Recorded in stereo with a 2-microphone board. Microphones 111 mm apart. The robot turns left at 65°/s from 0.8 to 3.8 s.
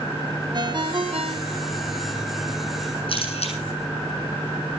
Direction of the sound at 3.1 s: 55° left (ahead or behind).